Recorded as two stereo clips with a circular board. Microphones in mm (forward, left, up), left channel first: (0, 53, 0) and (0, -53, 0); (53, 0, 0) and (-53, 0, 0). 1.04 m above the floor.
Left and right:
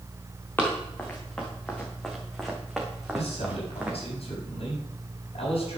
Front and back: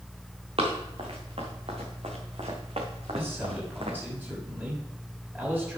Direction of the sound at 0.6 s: 160° left.